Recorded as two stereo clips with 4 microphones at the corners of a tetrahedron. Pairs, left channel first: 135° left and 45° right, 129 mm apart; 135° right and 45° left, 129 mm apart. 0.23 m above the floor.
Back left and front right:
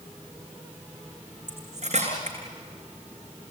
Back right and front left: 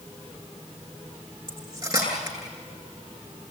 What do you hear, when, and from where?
1.5 s cutlery clinking: 10° right, 8 m